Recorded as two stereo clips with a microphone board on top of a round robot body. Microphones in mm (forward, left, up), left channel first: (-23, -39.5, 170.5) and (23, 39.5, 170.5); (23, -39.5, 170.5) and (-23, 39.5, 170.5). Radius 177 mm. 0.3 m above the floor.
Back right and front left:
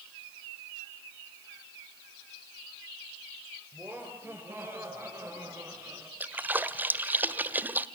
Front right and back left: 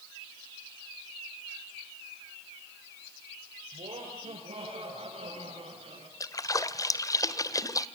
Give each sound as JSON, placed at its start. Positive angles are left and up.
{"t": 3.7, "sound": "laughter", "azimuth_deg": 130, "distance_m": 10.0}
{"t": 6.2, "sound": "a splash", "azimuth_deg": -10, "distance_m": 1.4}